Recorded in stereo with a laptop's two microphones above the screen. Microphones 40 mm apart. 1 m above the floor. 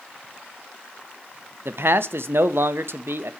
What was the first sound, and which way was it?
A man speaking, 65° right (ahead or behind).